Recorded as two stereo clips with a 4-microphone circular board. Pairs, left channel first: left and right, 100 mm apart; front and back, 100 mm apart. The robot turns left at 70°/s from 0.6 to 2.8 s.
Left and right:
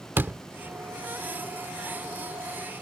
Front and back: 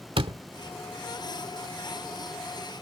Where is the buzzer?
I don't hear a buzzer.